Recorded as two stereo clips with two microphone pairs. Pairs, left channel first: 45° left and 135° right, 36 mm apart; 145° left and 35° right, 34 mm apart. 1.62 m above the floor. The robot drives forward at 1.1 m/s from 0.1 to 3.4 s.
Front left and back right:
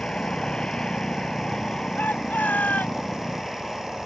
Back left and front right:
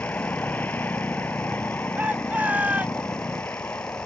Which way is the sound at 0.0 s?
115° left.